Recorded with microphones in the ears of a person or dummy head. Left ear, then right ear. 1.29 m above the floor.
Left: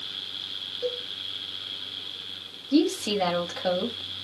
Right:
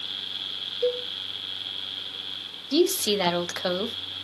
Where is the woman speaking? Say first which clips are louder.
Right 2 dB; 50° right (ahead or behind), 0.8 m.